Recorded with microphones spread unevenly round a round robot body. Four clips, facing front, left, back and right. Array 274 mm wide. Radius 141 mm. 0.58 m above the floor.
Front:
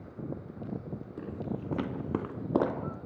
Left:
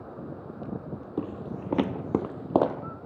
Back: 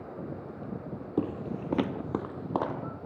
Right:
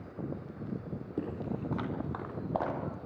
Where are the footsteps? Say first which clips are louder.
Left 2 dB, back 7 dB; 165° left, 1.2 m; by 2.8 s 65° left, 1.5 m.